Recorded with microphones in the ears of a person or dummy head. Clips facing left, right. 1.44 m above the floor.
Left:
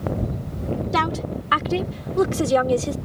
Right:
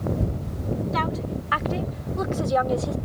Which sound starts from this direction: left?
A woman speaking, at 0.9 s.